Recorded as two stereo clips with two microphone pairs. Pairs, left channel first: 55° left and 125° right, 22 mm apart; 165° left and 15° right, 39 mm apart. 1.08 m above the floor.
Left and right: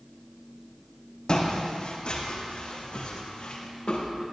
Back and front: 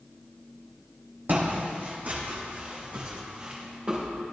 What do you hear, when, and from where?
1.3 s footsteps: 15° left, 2.5 m; by 4.1 s 40° left, 3 m